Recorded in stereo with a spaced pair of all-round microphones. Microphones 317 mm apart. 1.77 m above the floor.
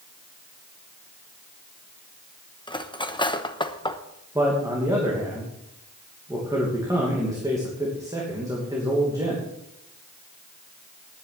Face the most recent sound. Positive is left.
turn(degrees=-10)  # may be behind; listen again after turning